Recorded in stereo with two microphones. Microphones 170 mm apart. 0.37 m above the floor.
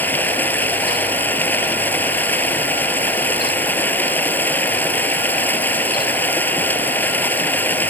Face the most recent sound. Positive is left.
turn(degrees=10)  # may be behind; listen again after turning